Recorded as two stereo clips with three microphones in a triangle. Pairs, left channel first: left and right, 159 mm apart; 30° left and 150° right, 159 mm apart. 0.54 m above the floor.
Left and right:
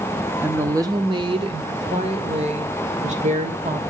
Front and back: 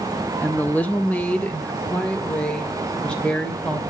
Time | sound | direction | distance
0.4 | a woman speaking | 30° right | 0.8 m